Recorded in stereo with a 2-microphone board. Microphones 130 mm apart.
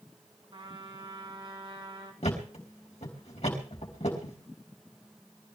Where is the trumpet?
45° right (ahead or behind), 4 m.